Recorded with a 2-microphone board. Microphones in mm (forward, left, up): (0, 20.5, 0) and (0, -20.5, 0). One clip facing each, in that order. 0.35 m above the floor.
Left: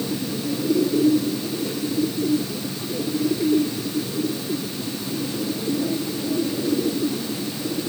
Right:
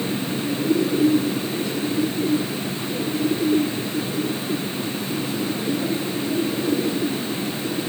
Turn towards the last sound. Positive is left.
No sound to turn to.